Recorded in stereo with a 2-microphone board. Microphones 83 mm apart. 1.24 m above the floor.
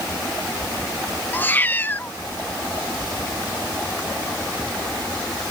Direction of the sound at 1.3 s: 25° left (ahead or behind).